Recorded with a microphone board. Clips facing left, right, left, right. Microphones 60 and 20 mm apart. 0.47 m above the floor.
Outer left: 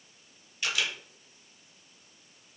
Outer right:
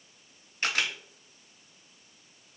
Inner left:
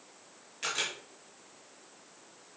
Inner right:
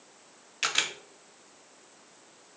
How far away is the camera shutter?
About 0.7 m.